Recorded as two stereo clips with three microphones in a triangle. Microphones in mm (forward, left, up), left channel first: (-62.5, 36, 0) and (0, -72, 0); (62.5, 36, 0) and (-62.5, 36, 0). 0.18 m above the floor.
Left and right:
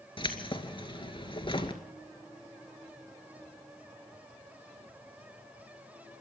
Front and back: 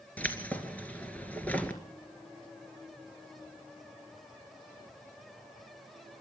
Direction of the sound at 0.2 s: 75° left.